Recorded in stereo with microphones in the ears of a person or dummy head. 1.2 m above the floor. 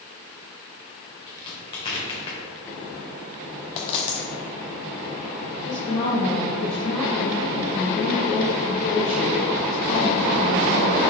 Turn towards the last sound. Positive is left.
turn(degrees=30)  # may be behind; listen again after turning